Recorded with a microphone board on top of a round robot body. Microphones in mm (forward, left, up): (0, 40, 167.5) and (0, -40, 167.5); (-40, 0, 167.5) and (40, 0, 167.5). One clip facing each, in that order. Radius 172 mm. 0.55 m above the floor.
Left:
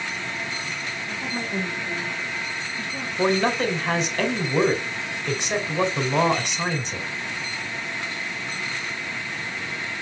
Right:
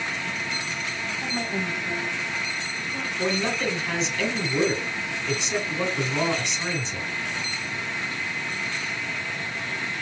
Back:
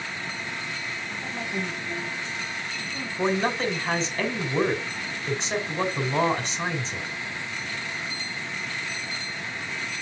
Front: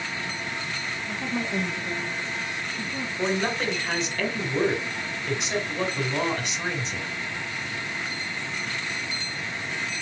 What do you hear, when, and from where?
1.1 s a woman speaking: 15° left, 3 m; by 3.1 s 30° left, 5 m
3.2 s a man speaking: 125° left, 2.5 m